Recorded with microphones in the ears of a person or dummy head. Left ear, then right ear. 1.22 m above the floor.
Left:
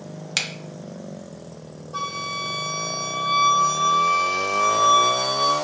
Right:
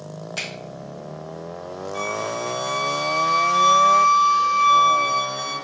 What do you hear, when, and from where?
0.4 s a finger snap: 45° left (ahead or behind), 0.5 m
1.9 s a flute: 5° right (ahead or behind), 1.6 m